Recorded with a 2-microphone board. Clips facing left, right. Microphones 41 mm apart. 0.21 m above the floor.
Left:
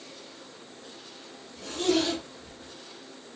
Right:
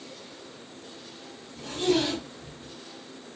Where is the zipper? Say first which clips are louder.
Right 1 dB; 10° right (ahead or behind), 1.6 m.